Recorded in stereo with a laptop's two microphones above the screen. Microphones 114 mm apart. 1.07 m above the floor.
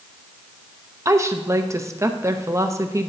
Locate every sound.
1.1 s a woman speaking: 30° right (ahead or behind), 0.8 m